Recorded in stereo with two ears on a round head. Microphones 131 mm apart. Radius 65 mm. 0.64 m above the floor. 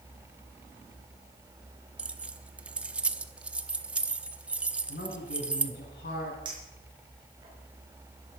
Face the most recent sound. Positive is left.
turn(degrees=-35)  # may be behind; listen again after turning